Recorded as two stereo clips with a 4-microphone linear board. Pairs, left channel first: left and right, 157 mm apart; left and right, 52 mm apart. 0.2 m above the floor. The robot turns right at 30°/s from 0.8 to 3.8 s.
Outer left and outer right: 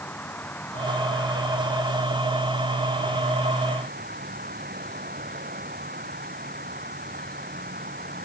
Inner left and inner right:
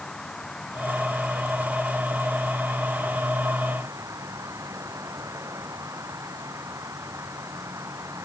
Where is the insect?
170° left; by 8.2 s 100° right.